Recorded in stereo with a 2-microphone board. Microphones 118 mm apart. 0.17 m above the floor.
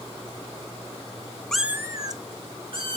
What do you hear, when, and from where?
1.5 s a cat meowing: 5° left (ahead or behind), 0.6 m; by 3.0 s 50° right (ahead or behind), 2.5 m